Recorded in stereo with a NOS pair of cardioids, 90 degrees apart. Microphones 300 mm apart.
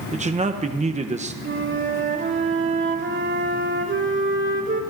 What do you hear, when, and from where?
0.1 s a man speaking: 20° right, 0.8 m
1.4 s a flute: 40° right, 1.9 m